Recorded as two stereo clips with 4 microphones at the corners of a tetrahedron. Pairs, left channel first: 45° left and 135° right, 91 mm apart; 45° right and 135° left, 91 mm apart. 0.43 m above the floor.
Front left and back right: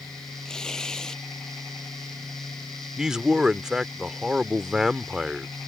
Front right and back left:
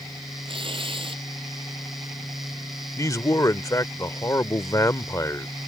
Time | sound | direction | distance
0.5 | tearing paper | 130° left | ?
3.0 | a man speaking | 55° right | ?